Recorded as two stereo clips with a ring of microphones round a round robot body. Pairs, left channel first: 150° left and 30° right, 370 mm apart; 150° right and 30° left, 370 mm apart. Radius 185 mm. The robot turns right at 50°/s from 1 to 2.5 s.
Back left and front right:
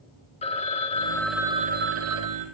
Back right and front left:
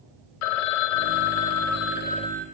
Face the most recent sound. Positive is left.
turn(degrees=-60)